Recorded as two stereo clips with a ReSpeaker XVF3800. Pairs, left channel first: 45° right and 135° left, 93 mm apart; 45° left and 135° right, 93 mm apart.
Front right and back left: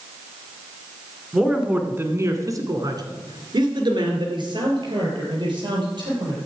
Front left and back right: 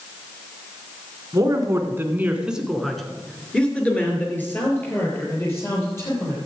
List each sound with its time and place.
1.3 s a man speaking: 145° right, 1.6 m; by 6.4 s 105° left, 4.5 m